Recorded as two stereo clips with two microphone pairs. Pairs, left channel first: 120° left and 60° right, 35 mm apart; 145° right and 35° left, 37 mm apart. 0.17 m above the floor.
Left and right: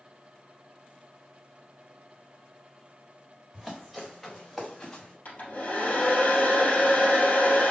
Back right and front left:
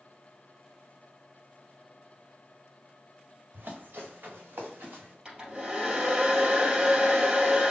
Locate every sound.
3.5 s running footsteps: 25° left, 1.6 m; by 5.2 s 45° left, 2.5 m
5.2 s a hair dryer: 85° left, 2.5 m